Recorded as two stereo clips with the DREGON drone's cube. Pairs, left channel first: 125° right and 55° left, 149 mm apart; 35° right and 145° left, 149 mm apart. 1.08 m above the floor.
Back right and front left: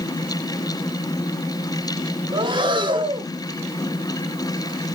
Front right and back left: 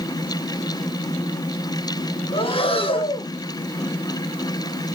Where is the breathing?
5° left, 1.1 m.